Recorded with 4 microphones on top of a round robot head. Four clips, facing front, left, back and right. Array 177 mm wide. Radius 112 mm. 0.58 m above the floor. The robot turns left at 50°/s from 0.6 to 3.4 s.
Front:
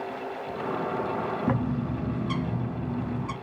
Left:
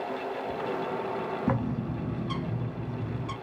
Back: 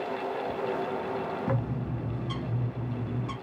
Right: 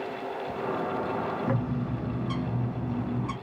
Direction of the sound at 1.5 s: 45° left.